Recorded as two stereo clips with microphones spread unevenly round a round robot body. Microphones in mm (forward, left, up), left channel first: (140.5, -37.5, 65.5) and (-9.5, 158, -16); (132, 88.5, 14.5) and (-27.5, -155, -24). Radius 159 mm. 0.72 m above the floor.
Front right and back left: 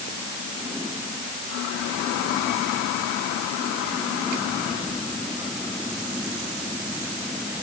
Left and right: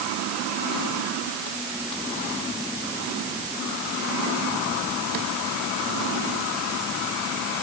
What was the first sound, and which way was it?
Only background noise.